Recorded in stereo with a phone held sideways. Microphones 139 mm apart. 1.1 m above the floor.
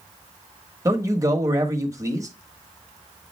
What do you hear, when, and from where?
0.8 s a man speaking: 25° right (ahead or behind), 1.5 m